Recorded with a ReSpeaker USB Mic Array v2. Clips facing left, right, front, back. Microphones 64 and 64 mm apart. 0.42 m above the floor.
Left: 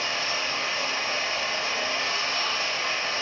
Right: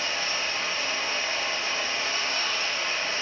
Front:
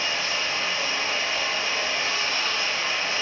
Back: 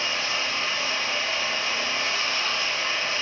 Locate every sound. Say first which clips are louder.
0.0 s running water: left 1 dB, even; 85° left, 0.7 m